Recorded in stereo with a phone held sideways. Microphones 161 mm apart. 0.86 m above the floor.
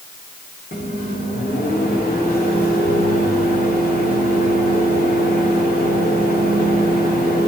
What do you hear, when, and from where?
0.7 s a microwave: 70° left (ahead or behind), 1.9 m